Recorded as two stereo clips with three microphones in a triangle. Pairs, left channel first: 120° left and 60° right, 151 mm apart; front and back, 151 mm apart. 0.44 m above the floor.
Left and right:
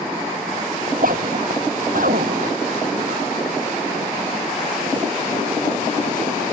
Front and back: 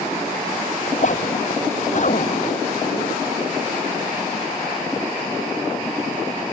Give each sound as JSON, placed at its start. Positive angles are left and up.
{"t": 0.9, "sound": "a zipper", "azimuth_deg": -35}